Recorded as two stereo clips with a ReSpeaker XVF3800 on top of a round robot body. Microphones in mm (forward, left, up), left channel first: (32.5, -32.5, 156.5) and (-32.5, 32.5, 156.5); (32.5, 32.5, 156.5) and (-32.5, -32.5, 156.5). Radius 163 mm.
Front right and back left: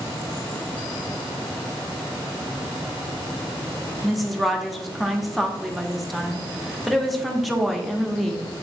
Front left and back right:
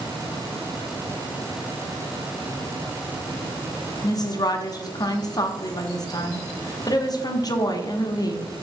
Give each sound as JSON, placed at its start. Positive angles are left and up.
{"t": 4.0, "sound": "a woman speaking", "azimuth_deg": 45, "distance_m": 1.2}